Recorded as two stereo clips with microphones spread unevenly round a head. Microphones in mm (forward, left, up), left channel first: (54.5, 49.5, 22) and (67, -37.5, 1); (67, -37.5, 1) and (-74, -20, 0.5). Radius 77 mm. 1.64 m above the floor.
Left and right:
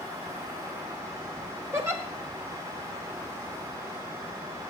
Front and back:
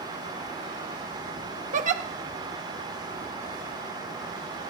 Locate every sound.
1.7 s a giggle: 150° right, 0.8 m